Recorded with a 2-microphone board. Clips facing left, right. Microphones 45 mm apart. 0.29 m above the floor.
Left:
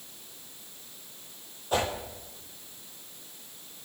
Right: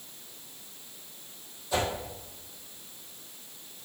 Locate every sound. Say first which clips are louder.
1.7 s a whoosh: left 1 dB; 45° left (ahead or behind), 2 m